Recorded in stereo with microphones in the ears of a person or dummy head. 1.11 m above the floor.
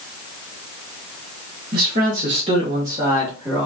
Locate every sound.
1.7 s a man speaking: 50° right (ahead or behind), 1.0 m; by 3.6 s 5° right (ahead or behind), 1.2 m